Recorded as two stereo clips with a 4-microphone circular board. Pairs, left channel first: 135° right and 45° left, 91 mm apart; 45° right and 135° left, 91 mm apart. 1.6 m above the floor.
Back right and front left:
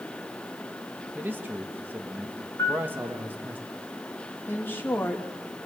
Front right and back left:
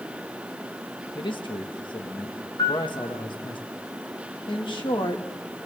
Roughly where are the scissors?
I don't hear scissors.